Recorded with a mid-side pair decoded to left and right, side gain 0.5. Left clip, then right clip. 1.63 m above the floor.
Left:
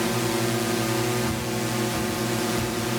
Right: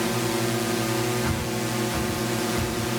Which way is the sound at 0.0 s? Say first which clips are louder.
Even; 5° left.